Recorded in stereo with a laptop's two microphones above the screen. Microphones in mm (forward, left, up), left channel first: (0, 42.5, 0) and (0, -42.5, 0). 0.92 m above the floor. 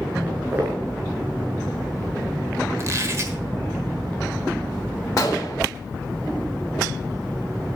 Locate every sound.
0.3 s footsteps: 30° right (ahead or behind), 6 m
2.8 s a squeak: 40° right (ahead or behind), 1.3 m
5.2 s a gunshot: 40° left (ahead or behind), 1.2 m